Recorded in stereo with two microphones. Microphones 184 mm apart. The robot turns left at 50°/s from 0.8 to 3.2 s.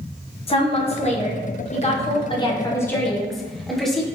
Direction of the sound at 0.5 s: 125° left.